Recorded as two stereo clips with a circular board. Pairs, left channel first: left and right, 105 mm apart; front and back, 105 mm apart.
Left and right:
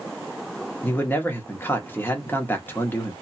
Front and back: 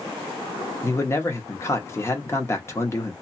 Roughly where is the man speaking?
Ahead left.